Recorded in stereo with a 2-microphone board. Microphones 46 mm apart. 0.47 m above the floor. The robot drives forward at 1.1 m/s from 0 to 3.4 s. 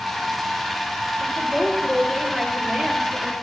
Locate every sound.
1.2 s a woman speaking: centre (ahead or behind), 9.5 m